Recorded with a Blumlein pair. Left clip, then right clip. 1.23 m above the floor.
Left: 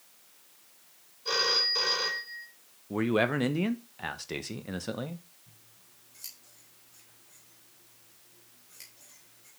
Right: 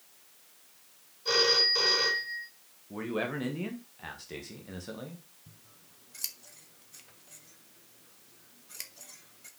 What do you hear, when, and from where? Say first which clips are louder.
1.2 s a phone ringing: right 2 dB; straight ahead, 3.5 m
2.9 s a man speaking: left 6 dB; 65° left, 1.0 m
5.5 s scissors: right 1 dB; 60° right, 1.1 m